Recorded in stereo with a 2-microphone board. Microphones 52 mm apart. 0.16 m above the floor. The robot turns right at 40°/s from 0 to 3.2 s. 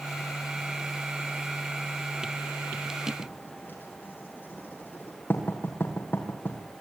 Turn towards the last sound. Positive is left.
turn(degrees=35)  # may be behind; listen again after turning